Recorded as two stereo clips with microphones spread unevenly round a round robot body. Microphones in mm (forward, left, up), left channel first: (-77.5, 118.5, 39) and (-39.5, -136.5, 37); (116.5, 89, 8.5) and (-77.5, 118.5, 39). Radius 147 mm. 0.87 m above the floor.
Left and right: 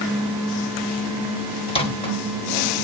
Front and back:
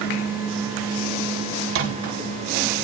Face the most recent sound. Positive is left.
turn(degrees=165)